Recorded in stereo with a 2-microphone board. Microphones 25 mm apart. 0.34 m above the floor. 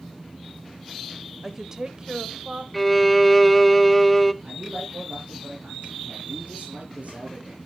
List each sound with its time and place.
1.4 s a woman speaking: 10° right (ahead or behind), 1.2 m; by 2.6 s 50° right (ahead or behind), 1.5 m
2.7 s a violin: 5° left (ahead or behind), 0.6 m
4.4 s a man speaking: 70° right (ahead or behind), 8 m